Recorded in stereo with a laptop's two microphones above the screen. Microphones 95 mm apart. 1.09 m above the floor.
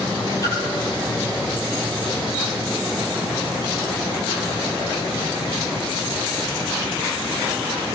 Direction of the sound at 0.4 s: 35° left (ahead or behind).